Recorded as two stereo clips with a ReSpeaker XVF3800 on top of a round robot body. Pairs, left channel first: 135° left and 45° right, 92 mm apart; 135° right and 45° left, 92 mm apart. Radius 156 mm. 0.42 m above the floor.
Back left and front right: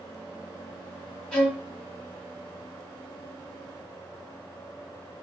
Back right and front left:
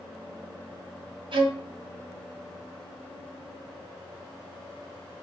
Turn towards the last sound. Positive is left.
turn(degrees=60)